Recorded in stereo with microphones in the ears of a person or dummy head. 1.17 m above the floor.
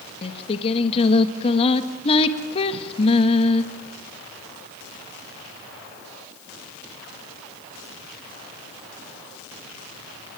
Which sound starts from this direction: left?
Singing, at 0.2 s.